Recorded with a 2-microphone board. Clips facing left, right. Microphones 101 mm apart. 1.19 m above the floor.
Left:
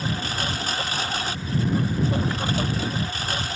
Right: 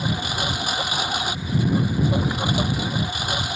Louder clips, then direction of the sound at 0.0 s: Right 2 dB; 15° right (ahead or behind).